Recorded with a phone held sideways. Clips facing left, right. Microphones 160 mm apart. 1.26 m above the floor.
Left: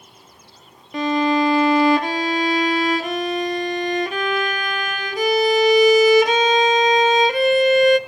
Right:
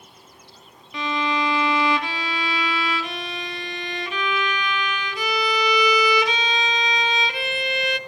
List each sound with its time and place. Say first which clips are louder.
0.9 s a violin: left 7 dB; 45° left (ahead or behind), 0.7 m